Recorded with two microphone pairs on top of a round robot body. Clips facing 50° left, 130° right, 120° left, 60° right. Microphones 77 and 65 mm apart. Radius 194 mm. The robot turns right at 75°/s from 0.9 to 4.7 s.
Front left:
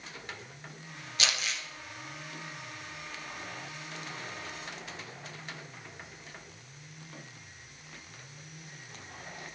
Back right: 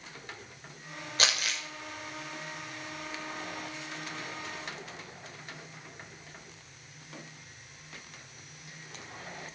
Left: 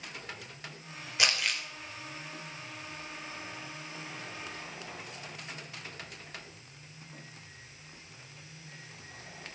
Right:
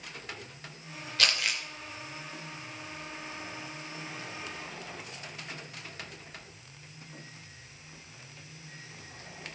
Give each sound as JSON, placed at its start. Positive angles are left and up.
{"t": 1.2, "sound": "crumpling", "azimuth_deg": -165, "distance_m": 2.0}